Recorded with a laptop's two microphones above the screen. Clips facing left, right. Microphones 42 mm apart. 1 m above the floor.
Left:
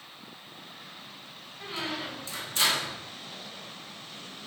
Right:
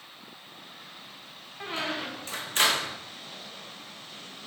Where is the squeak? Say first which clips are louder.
Right 2 dB; 50° right (ahead or behind), 0.5 m.